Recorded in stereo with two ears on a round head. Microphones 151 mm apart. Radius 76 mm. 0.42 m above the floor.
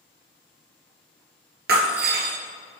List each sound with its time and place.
1.7 s breaking glass: 70° right (ahead or behind), 2.5 m